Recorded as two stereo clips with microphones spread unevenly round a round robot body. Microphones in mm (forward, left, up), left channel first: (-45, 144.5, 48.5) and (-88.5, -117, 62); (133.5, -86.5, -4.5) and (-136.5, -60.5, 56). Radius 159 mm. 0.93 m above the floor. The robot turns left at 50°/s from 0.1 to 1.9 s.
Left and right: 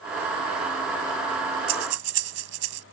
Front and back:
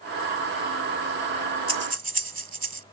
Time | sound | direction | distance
1.7 | breathing | 115° right | ?